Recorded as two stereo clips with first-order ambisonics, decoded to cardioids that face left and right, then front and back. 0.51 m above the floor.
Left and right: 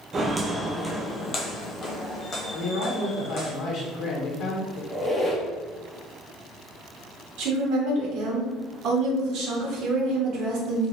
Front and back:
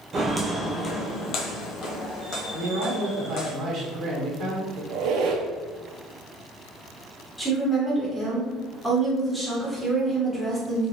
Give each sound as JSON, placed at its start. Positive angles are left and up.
{"t": 0.1, "sound": "footsteps", "azimuth_deg": -135, "distance_m": 0.5}
{"t": 2.5, "sound": "a man speaking", "azimuth_deg": 125, "distance_m": 1.1}
{"t": 4.9, "sound": "a squeak", "azimuth_deg": 180, "distance_m": 0.7}
{"t": 7.4, "sound": "a woman speaking", "azimuth_deg": -80, "distance_m": 1.0}